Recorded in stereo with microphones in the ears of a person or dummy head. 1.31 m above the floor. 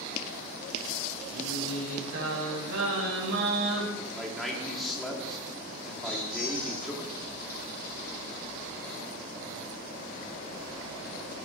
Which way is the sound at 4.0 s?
Centre (ahead or behind).